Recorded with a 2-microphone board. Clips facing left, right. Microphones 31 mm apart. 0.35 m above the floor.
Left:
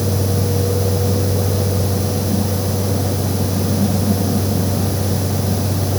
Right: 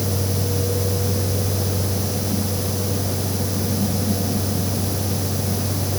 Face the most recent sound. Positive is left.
No sound to turn to.